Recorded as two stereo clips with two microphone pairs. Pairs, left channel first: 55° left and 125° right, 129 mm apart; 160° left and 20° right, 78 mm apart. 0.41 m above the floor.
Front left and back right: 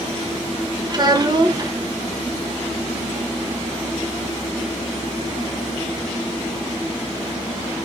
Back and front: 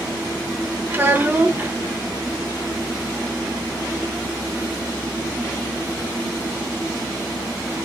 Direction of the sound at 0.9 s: 80° right.